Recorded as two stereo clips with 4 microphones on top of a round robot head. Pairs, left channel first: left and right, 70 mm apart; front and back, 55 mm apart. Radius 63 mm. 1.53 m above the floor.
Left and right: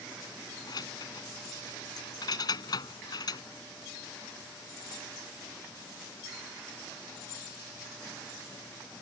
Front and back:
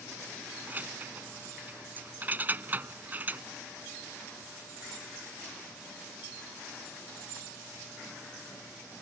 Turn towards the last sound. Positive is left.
turn(degrees=120)